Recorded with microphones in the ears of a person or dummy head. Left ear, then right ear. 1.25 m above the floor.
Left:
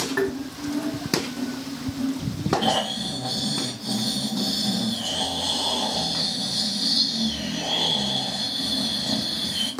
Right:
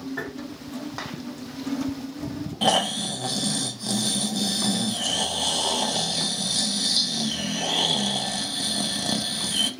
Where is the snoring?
55° right (ahead or behind), 0.6 m.